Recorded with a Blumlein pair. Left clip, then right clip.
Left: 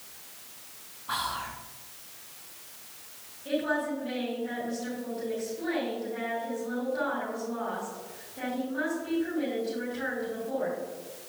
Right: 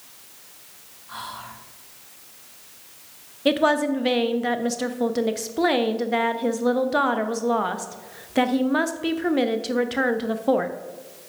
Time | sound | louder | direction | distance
1.1 | whispering | left 4 dB | 55° left | 1.4 m
3.5 | a woman speaking | right 9 dB | 40° right | 1.0 m